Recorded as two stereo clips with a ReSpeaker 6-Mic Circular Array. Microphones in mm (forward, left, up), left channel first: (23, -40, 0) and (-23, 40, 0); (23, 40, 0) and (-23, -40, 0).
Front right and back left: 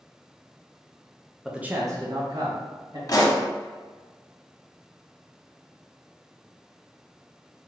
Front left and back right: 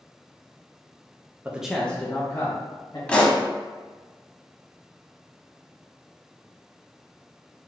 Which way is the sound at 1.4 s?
155° right.